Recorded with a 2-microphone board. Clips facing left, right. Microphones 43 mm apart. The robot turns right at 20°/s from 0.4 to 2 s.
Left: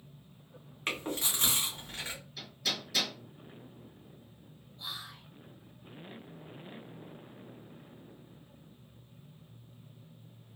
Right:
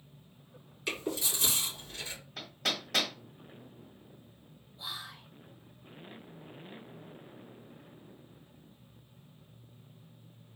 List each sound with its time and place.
0.9 s chewing: 45° left (ahead or behind), 1.9 m; by 2.2 s 65° left (ahead or behind), 1.9 m
2.4 s hammering: 55° right (ahead or behind), 1.1 m
4.8 s whispering: 5° right (ahead or behind), 0.5 m